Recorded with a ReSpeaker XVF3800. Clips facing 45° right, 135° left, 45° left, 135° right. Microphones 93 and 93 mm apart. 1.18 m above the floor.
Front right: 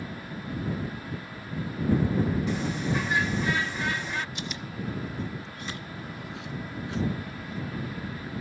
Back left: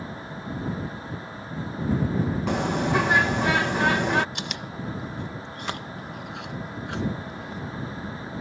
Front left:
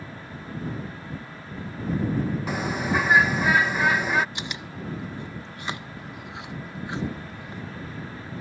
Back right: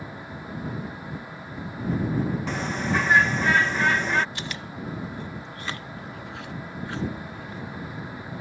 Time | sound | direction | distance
2.5 | a bird | 125° left | ?
4.3 | chewing | 115° left | ?